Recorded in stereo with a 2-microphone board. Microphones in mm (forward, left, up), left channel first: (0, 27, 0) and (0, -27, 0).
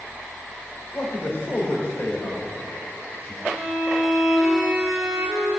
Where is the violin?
10° right (ahead or behind), 3.5 m.